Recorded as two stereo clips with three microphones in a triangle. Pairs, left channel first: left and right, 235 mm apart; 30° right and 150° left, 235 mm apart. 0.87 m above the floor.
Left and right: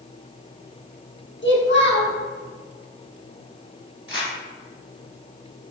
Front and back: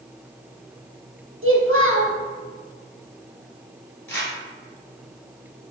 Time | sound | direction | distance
1.4 | a child speaking | 125° left | 0.9 m
4.1 | crumpling | 65° right | 1.8 m